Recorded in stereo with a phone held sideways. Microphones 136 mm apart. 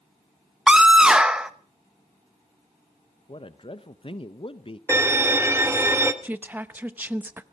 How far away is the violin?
About 1.0 m.